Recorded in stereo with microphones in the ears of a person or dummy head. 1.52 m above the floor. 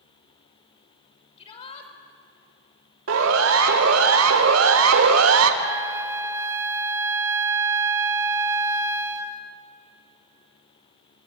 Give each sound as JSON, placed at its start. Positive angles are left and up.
{"t": 1.4, "sound": "a shout", "side_deg": 35, "distance_m": 5.0}
{"t": 3.1, "sound": "a siren", "side_deg": -85, "distance_m": 4.0}
{"t": 5.6, "sound": "a flute", "side_deg": -15, "distance_m": 1.6}